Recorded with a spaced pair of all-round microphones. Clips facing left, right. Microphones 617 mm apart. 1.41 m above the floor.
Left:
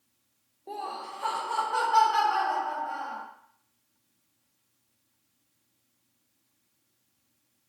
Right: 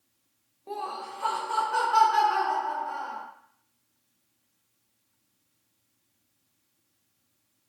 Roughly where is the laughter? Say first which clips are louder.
Right 2 dB; right.